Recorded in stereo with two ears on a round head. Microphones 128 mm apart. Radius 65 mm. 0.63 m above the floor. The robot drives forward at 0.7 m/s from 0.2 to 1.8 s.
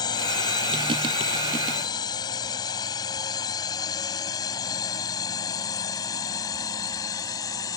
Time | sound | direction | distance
0.0 | a drone | 30° left (ahead or behind) | ?